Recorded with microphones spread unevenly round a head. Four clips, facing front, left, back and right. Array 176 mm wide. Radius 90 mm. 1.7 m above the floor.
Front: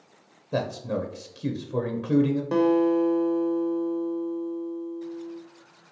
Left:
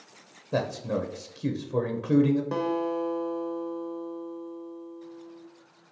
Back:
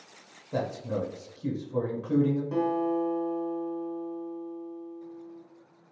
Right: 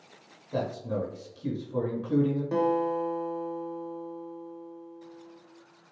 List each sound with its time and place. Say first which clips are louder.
0.5 s a man speaking: left 2 dB, front 3 dB; 45° left, 0.6 m
2.5 s a guitar: right 2 dB, front 6 dB; 5° left, 0.8 m